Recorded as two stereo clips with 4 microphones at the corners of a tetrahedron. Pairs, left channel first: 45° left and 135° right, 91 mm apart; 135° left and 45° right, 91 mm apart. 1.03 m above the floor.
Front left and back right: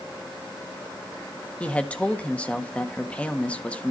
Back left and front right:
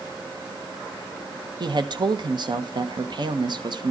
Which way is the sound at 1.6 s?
30° right.